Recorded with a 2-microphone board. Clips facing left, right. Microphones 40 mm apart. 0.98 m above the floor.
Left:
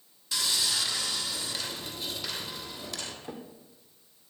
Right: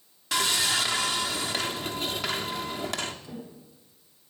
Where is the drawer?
45° left (ahead or behind), 1.8 m.